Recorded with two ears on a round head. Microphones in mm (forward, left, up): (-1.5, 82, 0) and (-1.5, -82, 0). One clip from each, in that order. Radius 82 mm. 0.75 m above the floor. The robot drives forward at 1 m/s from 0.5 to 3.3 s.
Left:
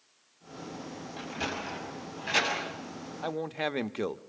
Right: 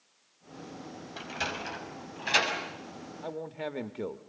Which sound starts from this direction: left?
A man speaking, at 3.2 s.